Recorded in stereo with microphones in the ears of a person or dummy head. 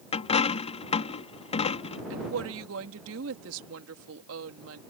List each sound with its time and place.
0.1 s a dropped coin: 35° left (ahead or behind)
2.1 s a woman speaking: 75° right (ahead or behind)